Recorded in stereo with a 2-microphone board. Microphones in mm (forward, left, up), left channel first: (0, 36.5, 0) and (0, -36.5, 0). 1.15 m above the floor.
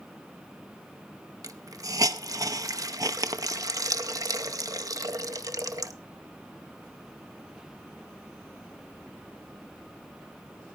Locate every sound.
1.4 s a hiss: 55° right (ahead or behind), 0.6 m